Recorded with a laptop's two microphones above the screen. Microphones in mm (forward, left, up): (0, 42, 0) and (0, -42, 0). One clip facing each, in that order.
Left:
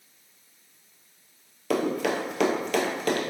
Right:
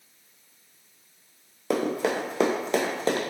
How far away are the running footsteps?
About 1.0 m.